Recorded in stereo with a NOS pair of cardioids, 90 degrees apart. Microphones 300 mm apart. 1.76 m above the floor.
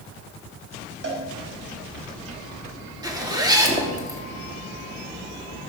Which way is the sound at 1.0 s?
35° right.